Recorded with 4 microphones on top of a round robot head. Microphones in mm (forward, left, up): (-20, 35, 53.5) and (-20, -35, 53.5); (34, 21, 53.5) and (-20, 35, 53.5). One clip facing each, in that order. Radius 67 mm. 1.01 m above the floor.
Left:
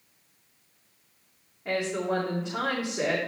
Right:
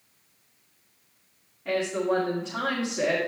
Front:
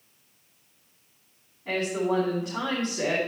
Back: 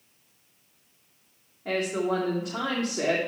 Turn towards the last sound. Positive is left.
turn(degrees=165)